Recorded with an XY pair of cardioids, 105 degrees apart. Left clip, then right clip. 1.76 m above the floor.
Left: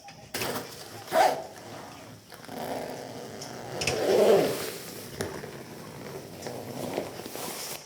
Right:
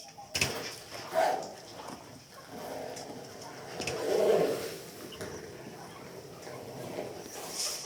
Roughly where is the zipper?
Left.